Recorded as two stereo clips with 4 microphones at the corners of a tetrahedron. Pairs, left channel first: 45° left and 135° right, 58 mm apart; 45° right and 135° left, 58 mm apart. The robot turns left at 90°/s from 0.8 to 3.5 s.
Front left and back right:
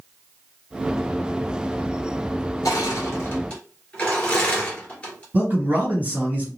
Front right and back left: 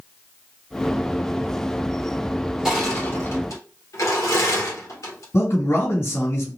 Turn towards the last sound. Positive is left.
turn(degrees=-80)